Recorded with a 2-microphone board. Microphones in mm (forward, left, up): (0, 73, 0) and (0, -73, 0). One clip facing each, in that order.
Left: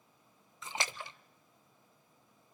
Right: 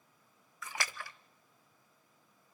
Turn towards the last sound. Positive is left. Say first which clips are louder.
# left 2 dB
turn(degrees=20)  # may be behind; listen again after turning